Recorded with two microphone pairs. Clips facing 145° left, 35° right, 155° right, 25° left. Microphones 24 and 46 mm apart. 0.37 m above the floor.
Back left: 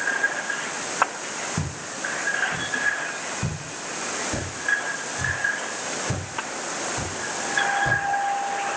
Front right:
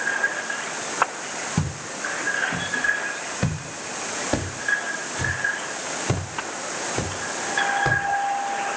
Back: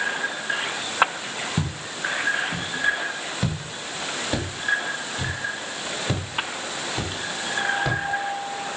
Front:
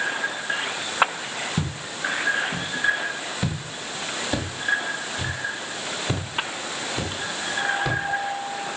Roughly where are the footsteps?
Right.